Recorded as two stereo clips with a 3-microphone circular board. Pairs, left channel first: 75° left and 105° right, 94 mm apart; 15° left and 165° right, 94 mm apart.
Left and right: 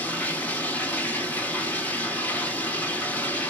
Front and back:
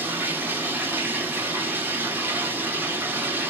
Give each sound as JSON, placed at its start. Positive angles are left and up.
{"t": 0.0, "sound": "running water", "azimuth_deg": 140, "distance_m": 0.8}